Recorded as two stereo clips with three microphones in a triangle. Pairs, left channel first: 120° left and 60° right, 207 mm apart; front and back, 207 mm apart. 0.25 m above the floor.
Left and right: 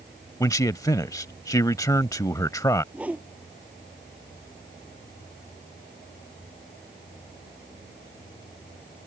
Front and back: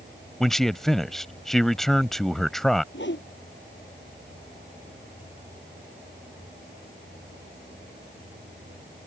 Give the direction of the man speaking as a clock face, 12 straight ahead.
9 o'clock.